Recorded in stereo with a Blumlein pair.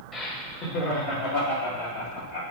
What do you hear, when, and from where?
0.1 s laughter: 20° left, 1.6 m; by 2.4 s 60° left, 3.5 m